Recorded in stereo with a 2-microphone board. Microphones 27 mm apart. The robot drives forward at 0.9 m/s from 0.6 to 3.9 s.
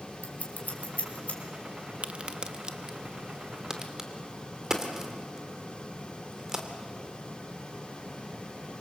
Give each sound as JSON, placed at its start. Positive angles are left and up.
{"t": 0.2, "sound": "scissors", "side_deg": 80, "distance_m": 3.0}
{"t": 2.0, "sound": "a crack", "side_deg": -45, "distance_m": 0.8}